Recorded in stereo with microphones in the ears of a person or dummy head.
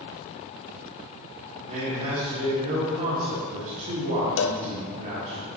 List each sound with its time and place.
1.7 s a man speaking: 40° right (ahead or behind), 1.7 m
4.4 s a cowbell: 65° left (ahead or behind), 0.5 m